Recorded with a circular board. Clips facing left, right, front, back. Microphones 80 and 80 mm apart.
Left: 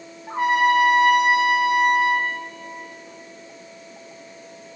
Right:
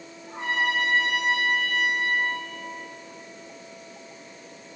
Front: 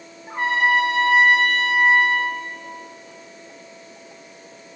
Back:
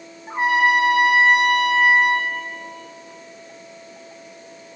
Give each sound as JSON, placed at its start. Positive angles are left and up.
{"t": 0.3, "sound": "a trumpet", "azimuth_deg": 110, "distance_m": 4.0}